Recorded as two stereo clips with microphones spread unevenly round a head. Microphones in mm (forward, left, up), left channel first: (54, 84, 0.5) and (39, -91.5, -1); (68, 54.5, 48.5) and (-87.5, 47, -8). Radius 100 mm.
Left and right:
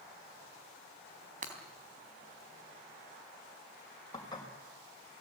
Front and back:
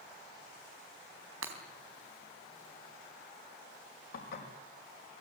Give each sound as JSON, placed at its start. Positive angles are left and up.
{"t": 1.4, "sound": "breaking glass", "azimuth_deg": -145, "distance_m": 3.5}
{"t": 4.1, "sound": "dishes clattering", "azimuth_deg": 20, "distance_m": 5.5}